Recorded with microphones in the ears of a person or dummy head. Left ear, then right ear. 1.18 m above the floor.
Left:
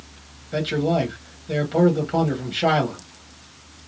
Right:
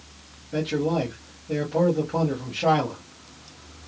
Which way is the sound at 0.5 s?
50° left (ahead or behind).